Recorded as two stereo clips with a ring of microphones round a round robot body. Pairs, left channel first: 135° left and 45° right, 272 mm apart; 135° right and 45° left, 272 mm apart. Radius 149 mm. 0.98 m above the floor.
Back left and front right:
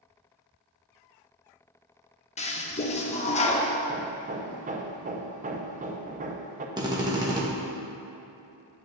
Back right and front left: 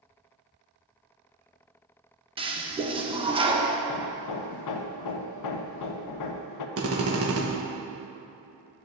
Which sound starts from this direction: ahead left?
A drill, at 6.8 s.